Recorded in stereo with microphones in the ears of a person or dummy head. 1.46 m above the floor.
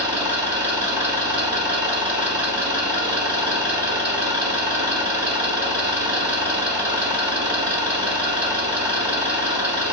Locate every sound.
0.0 s an engine running: 30° right (ahead or behind), 1.8 m